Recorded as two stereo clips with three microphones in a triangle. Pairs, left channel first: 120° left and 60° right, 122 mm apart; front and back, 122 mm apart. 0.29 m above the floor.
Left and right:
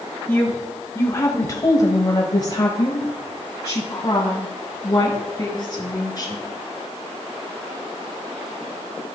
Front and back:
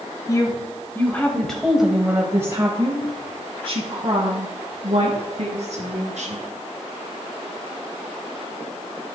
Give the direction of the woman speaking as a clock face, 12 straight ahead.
10 o'clock.